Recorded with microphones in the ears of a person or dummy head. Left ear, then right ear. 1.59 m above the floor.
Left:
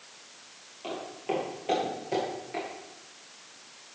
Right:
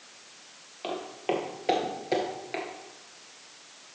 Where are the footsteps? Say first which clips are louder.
Right 3 dB; 30° right (ahead or behind), 2.5 m; by 2.6 s 20° right (ahead or behind), 1.7 m.